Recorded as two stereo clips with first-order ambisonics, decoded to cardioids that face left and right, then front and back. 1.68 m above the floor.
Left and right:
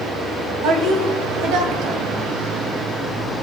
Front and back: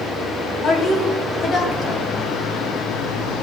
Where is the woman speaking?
65° right, 2.5 m.